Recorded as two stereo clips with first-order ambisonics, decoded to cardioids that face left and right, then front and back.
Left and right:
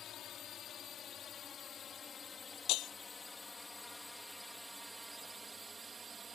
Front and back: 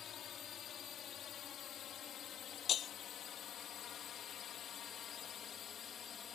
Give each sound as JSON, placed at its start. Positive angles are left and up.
{"t": 0.0, "sound": "a drone", "azimuth_deg": 50}
{"t": 2.7, "sound": "breaking glass", "azimuth_deg": 60}